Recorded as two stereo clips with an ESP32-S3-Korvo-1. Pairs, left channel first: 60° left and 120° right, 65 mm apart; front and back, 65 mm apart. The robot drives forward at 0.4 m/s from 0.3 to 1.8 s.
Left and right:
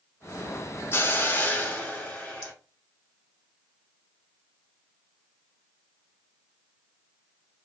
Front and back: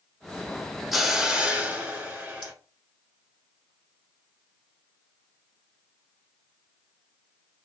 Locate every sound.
0.9 s a hiss: 95° left, 0.7 m; by 2.5 s 130° left, 0.8 m